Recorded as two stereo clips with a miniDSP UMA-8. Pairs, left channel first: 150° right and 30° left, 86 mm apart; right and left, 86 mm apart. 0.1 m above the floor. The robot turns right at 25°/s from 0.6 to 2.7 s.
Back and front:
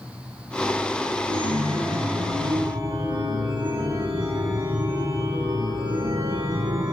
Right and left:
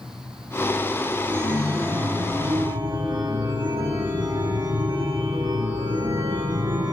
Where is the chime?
20° left, 8.5 m; by 6.9 s 55° left, 8.5 m.